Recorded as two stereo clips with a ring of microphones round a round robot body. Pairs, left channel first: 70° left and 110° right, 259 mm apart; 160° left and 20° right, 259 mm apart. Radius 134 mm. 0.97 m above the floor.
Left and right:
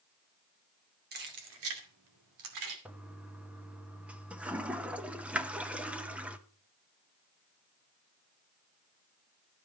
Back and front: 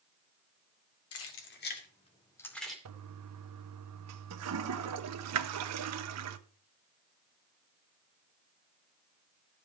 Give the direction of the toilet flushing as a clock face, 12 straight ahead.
1 o'clock.